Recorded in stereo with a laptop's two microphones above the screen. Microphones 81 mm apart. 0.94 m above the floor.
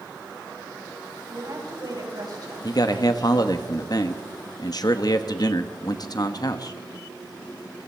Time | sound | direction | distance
1.3 | a woman speaking | 55° right (ahead or behind) | 5 m
2.6 | a man speaking | 55° left (ahead or behind) | 0.9 m